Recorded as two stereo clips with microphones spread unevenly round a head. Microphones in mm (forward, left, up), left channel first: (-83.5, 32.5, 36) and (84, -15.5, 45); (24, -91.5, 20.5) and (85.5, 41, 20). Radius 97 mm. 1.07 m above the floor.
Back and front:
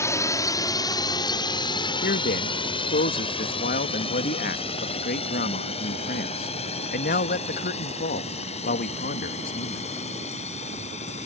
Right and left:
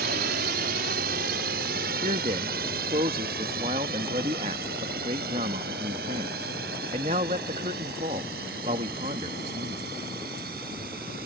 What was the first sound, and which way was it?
A drone, 90° left.